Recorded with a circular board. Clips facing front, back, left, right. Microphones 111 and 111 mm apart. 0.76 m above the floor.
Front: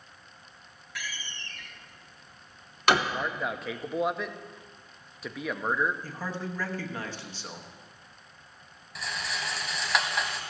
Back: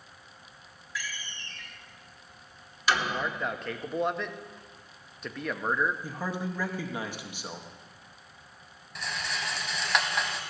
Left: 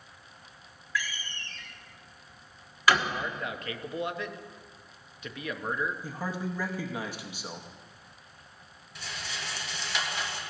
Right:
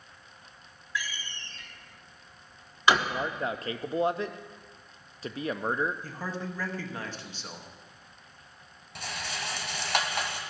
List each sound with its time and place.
0.9 s a door slam: 25° right, 1.0 m
3.1 s a man speaking: 85° right, 0.5 m
6.0 s a man speaking: 140° left, 0.9 m
8.9 s a rattle: 90° right, 1.2 m